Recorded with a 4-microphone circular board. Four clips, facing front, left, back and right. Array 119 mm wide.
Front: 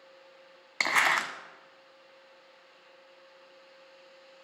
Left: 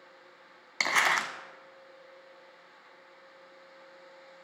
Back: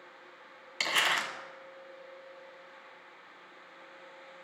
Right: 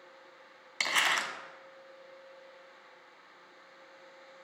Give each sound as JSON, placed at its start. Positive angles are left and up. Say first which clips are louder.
{"t": 0.8, "sound": "crumpling", "louder": "left 4 dB, front 4 dB", "azimuth_deg": 35, "distance_m": 0.6}